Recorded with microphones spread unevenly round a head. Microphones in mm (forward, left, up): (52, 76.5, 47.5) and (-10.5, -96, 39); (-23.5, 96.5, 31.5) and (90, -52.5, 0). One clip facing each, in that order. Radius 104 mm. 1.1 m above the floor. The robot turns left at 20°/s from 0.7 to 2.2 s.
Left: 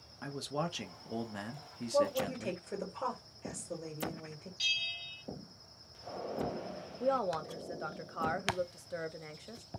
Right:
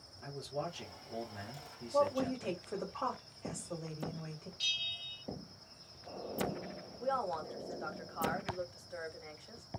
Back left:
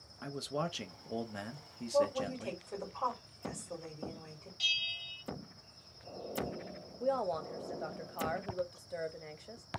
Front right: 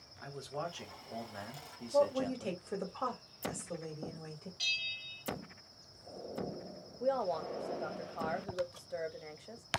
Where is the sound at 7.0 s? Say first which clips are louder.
Left 4 dB, even; 30° left, 0.6 m.